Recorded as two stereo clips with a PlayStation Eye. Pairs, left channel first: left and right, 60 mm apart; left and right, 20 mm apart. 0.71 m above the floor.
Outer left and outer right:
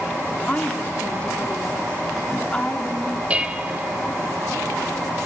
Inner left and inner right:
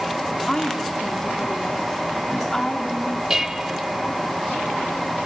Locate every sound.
0.5 s a woman speaking: 20° left (ahead or behind), 2.0 m
3.3 s dishes clattering: 20° right (ahead or behind), 1.6 m